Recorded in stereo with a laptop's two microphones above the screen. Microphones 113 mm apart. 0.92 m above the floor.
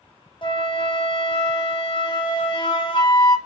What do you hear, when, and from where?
0.4 s a flute: 45° left (ahead or behind), 0.6 m